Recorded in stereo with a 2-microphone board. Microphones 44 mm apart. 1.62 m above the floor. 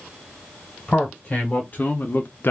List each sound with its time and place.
0.9 s a man speaking: 30° left (ahead or behind), 1.2 m; by 2.5 s 55° left (ahead or behind), 0.5 m